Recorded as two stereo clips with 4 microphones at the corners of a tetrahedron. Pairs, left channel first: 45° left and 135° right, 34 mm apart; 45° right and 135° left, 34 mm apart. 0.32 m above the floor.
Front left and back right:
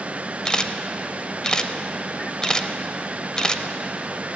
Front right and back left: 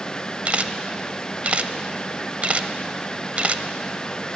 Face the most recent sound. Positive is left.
turn(degrees=105)